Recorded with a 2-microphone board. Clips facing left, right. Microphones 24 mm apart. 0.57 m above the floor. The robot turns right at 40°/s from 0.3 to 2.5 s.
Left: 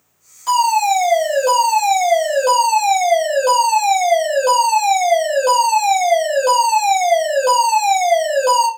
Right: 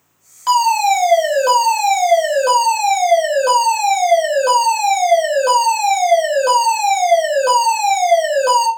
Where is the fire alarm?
30° right (ahead or behind), 1.8 m; by 8.7 s 5° right (ahead or behind), 1.8 m.